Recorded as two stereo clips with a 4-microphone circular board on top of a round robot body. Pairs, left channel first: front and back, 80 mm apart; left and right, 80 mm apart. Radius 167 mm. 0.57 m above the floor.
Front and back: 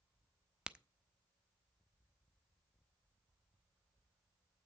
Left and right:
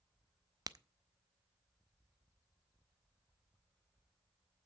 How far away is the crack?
About 0.9 m.